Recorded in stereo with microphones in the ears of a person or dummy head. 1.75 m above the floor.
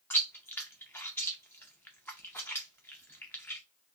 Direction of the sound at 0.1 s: 5° left (ahead or behind).